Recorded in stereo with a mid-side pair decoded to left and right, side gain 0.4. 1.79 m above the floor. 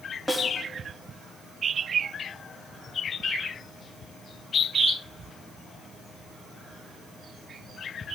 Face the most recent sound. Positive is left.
turn(degrees=5)